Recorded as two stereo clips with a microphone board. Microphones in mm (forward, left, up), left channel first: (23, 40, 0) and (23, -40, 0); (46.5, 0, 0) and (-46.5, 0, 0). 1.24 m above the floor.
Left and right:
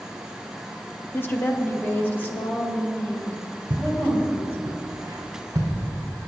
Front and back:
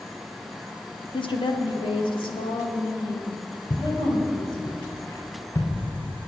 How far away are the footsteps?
About 5.5 m.